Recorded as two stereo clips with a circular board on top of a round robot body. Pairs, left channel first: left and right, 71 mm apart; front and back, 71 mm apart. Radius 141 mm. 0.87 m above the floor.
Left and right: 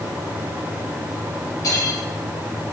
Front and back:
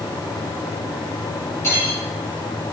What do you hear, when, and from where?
1.6 s cutlery clinking: 55° left, 3.5 m